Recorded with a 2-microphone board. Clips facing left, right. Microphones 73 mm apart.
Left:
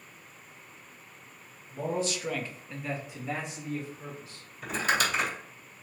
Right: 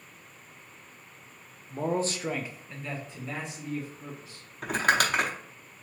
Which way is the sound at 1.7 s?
50° right (ahead or behind).